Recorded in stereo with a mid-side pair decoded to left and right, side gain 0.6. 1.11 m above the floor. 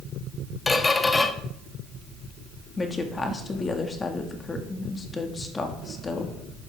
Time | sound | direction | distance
0.7 | a squeak | 20° left | 1.3 m
2.8 | a woman speaking | 25° left | 2.0 m